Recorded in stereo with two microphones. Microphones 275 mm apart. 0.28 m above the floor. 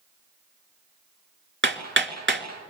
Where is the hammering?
45° right (ahead or behind), 2.5 m.